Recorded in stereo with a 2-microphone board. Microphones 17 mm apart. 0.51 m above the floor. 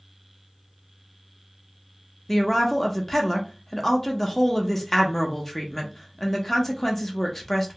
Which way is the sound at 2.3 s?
15° left (ahead or behind).